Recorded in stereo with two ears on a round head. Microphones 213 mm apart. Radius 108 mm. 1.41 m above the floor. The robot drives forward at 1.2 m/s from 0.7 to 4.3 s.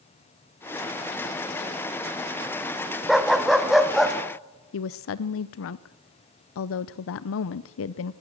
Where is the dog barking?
Centre (ahead or behind), 1.3 m.